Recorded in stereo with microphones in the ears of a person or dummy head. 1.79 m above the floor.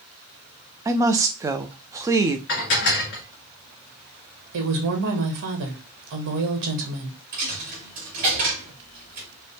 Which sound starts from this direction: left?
Dishes clattering, at 2.5 s.